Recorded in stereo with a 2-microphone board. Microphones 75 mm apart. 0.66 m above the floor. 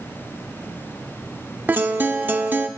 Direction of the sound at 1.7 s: 25° right (ahead or behind).